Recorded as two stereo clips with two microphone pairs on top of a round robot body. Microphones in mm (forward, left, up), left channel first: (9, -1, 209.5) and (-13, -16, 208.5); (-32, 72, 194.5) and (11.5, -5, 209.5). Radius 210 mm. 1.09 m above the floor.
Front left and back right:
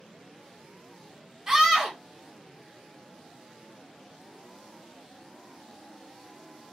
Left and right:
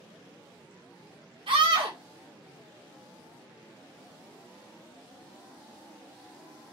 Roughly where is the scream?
Right.